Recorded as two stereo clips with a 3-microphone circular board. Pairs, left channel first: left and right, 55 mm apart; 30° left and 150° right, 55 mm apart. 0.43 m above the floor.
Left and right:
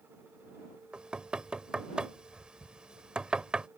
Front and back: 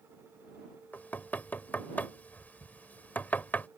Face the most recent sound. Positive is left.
turn(degrees=-20)